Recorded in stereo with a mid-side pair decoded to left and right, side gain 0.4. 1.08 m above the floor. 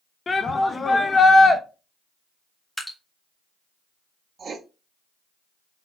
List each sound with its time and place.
0.3 s a shout: 35° left, 0.8 m
2.8 s dripping: 10° left, 1.8 m
4.4 s writing: 50° right, 0.9 m